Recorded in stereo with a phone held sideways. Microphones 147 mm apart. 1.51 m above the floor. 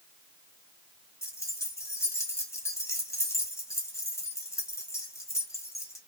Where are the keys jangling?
20° left (ahead or behind), 1.1 m.